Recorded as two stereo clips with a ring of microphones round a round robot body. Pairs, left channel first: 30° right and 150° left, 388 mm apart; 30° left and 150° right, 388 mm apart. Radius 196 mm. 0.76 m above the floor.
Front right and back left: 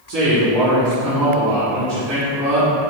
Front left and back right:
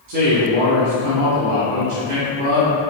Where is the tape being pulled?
I don't hear tape being pulled.